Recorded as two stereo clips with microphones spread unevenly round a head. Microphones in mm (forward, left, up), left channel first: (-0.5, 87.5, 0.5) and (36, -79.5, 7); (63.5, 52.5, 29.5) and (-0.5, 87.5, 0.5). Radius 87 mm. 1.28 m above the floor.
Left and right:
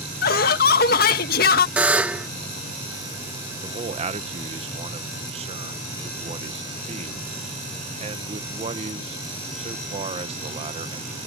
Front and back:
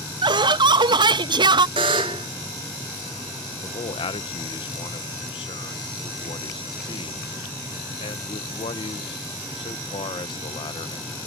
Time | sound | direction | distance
0.2 | laughter | 145° left | ?
1.8 | a buzzer | 160° right | ?
3.6 | a man speaking | 20° right | ?